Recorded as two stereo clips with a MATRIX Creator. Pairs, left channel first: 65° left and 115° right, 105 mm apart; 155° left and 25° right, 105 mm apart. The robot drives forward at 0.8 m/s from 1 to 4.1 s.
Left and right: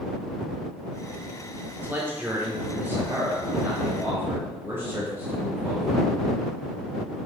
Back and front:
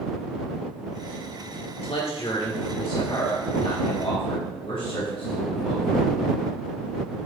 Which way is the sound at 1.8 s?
Straight behind.